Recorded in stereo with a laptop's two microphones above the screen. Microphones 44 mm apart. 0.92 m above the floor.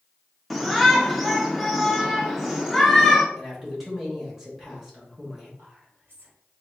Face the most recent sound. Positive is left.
turn(degrees=-60)  # may be behind; listen again after turning